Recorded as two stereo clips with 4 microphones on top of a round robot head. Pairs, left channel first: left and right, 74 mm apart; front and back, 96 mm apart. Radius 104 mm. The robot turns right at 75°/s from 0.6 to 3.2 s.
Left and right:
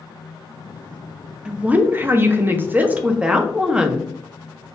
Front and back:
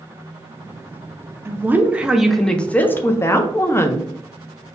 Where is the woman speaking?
155° right, 0.6 m; by 4.1 s 25° right, 0.6 m.